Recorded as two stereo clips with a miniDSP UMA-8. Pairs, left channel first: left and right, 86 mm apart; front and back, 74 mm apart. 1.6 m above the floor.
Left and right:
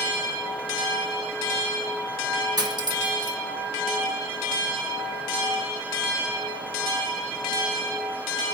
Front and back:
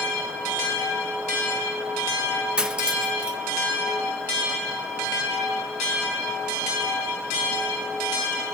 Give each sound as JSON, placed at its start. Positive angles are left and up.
{"t": 2.6, "sound": "cutlery clinking", "azimuth_deg": -105, "distance_m": 1.5}